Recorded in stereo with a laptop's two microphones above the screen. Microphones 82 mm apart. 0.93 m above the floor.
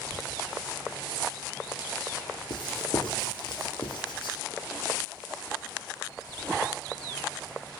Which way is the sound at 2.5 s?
75° left (ahead or behind).